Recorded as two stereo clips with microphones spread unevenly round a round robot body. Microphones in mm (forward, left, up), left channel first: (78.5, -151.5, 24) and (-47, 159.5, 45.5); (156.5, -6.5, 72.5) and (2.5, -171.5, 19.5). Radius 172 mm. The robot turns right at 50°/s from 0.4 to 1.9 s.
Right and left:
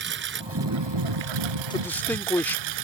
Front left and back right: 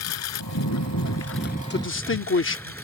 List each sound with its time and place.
0.0 s a lawn mower: 55° left; by 2.8 s 130° left
1.7 s a man speaking: 5° left; by 2.7 s 15° left